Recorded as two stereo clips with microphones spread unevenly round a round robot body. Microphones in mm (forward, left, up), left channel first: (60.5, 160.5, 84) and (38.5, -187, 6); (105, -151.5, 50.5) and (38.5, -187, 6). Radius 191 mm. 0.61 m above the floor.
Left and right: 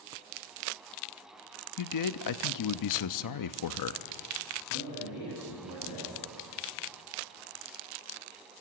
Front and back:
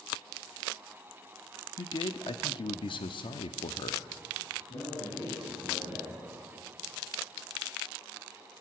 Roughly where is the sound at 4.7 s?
Ahead left.